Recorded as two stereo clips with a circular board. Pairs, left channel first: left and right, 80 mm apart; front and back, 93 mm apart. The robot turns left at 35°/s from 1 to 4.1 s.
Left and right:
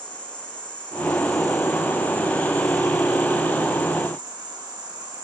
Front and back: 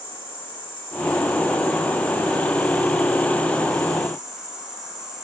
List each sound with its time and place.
0.0 s an insect: 15° left, 3 m; by 5.3 s 95° right, 3 m